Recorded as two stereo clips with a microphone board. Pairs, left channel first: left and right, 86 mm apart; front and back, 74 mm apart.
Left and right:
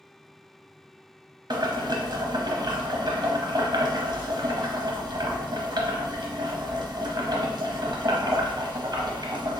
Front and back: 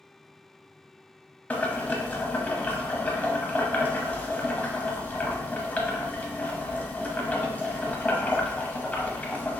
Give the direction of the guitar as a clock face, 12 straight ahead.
No guitar in this recording.